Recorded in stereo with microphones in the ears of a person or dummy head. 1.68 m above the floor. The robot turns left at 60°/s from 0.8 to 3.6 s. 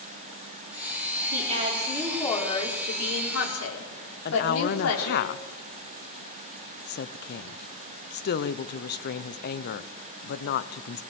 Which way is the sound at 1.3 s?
135° right.